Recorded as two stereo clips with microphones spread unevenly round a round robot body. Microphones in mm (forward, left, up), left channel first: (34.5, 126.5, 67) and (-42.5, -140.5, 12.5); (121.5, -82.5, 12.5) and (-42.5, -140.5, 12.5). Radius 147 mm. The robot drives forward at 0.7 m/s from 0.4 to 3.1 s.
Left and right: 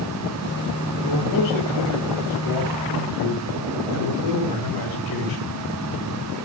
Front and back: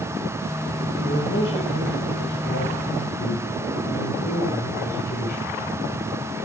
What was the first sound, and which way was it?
A man speaking, 45° left.